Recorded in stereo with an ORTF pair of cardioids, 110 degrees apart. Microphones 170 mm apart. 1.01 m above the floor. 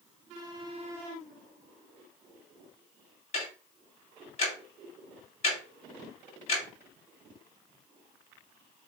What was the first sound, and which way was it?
Ticking, 40° left.